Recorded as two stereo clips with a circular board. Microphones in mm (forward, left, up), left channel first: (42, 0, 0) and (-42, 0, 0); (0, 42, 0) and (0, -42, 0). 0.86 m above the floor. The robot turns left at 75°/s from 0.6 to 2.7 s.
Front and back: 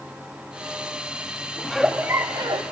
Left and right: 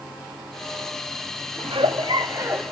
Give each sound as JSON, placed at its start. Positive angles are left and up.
{"t": 1.6, "sound": "a giggle", "azimuth_deg": -80, "distance_m": 0.7}